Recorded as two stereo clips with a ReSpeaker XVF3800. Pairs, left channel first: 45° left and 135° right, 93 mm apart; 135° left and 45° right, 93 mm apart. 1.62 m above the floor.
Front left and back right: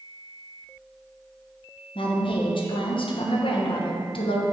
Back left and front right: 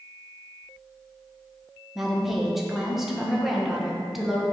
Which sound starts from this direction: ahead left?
A woman speaking, at 1.9 s.